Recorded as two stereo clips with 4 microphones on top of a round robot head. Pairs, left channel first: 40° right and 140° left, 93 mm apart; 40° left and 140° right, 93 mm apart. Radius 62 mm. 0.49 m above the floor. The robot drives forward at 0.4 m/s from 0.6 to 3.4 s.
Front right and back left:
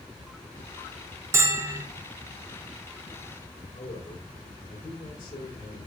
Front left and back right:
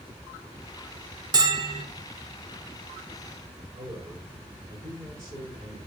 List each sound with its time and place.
1.3 s a bell: 170° right, 2 m
3.7 s a man speaking: 80° right, 6 m